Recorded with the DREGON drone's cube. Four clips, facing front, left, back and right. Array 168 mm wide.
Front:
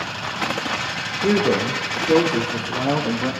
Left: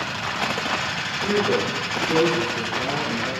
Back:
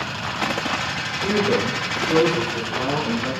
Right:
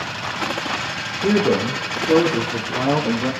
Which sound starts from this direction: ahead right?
A man speaking, at 1.2 s.